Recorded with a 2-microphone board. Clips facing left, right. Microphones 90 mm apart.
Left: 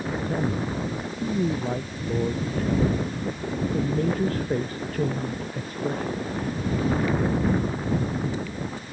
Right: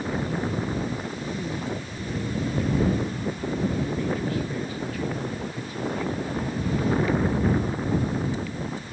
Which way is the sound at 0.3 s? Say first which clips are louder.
Left 1 dB; 45° left (ahead or behind).